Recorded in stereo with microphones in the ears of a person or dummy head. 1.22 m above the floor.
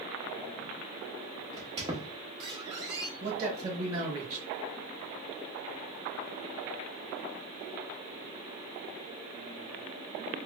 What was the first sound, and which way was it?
A squeak, 25° right (ahead or behind).